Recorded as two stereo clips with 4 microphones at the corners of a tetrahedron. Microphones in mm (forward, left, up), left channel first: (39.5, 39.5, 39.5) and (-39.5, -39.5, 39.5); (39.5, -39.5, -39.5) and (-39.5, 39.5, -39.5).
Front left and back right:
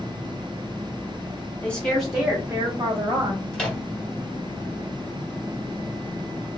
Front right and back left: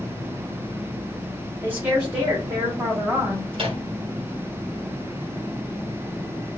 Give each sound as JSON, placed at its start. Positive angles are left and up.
{"t": 1.6, "sound": "a woman speaking", "azimuth_deg": 95, "distance_m": 0.9}
{"t": 3.5, "sound": "a microwave", "azimuth_deg": 125, "distance_m": 0.9}